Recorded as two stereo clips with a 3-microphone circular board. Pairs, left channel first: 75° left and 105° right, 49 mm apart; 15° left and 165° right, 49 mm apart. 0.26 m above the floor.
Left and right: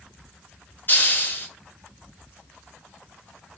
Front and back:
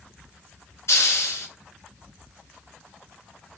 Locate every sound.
0.9 s a hiss: 25° left, 1.3 m